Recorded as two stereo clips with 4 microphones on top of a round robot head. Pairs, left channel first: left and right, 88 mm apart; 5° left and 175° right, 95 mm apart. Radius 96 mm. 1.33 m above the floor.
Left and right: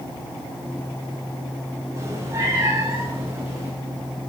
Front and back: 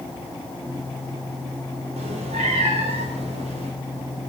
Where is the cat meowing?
160° right, 2 m; by 3.7 s 165° right, 3.5 m.